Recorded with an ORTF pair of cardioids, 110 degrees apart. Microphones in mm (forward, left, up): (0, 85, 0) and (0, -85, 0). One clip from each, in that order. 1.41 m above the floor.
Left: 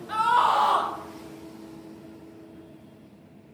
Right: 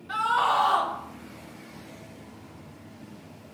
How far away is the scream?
About 1.2 m.